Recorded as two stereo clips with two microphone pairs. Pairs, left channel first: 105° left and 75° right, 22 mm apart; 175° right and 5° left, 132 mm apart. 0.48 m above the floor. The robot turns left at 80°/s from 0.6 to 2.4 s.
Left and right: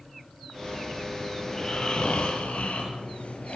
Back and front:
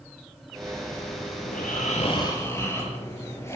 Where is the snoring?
170° right, 6.5 m; by 3.6 s 115° left, 6.5 m.